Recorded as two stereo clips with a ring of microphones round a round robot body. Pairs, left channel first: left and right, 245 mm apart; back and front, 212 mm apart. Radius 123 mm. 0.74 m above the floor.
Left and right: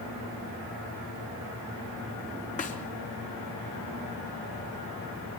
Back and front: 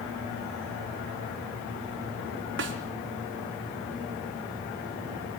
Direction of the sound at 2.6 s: 30° left.